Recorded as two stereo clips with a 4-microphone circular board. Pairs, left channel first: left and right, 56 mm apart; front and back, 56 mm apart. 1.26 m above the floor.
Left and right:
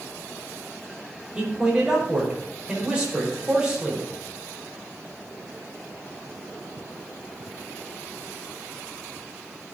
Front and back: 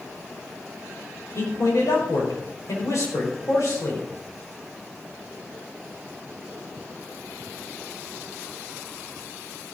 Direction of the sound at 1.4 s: 20° right.